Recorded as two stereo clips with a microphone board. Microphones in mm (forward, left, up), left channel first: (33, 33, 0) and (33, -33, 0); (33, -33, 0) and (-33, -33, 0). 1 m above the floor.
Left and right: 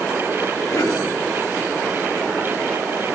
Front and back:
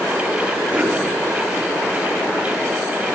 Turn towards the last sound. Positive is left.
turn(degrees=115)